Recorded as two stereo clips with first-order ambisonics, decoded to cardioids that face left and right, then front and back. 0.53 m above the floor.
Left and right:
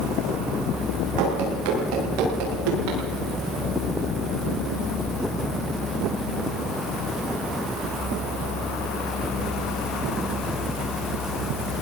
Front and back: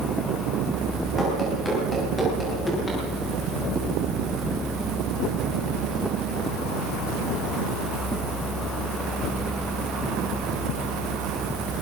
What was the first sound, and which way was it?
Running footsteps, 80° right.